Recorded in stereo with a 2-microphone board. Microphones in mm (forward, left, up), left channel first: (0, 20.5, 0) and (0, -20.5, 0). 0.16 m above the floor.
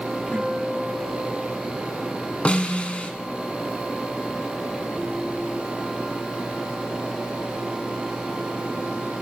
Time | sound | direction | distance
0.3 | a guitar | 35° left (ahead or behind) | 7.5 m
2.5 | a snare drum | 30° left (ahead or behind) | 1.2 m